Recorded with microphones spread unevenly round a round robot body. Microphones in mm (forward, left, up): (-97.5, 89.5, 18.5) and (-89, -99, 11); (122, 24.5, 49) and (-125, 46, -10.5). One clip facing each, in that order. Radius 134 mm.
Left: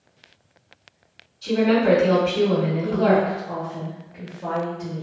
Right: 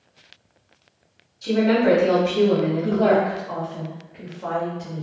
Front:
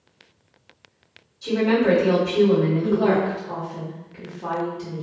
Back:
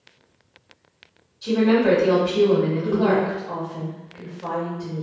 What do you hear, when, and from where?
1.4 s a woman speaking: 80° right, 1.9 m
2.8 s a woman speaking: 5° right, 0.9 m